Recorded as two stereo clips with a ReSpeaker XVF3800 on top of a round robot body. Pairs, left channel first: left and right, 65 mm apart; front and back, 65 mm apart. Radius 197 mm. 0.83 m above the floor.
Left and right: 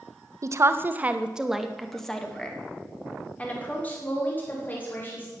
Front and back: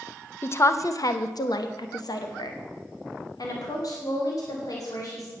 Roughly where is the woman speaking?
Ahead right.